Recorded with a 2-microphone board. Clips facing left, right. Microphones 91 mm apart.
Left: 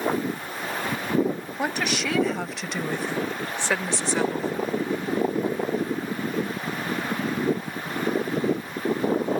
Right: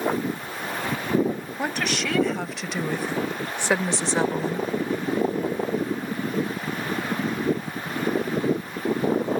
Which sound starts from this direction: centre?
A woman speaking, at 1.6 s.